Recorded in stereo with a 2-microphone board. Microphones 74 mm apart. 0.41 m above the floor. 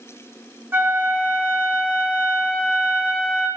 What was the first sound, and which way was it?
A flute, 30° right (ahead or behind).